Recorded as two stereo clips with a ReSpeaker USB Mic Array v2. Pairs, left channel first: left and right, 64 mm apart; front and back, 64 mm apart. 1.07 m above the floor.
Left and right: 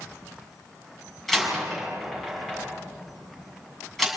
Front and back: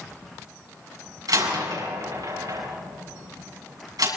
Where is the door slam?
Straight behind, 7.5 m.